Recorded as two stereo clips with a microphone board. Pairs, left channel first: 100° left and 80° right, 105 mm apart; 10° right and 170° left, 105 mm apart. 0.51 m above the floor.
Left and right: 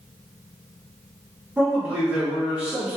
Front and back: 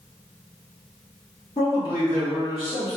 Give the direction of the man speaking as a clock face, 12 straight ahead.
12 o'clock.